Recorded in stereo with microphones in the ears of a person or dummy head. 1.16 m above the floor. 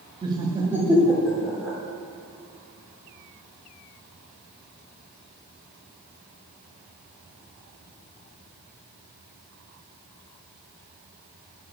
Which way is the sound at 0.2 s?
25° right (ahead or behind).